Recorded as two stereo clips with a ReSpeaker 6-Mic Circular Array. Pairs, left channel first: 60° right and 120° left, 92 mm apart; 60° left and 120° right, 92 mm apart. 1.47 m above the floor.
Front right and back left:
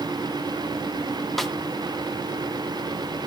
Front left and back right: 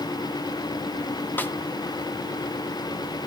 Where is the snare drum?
30° left, 0.7 m.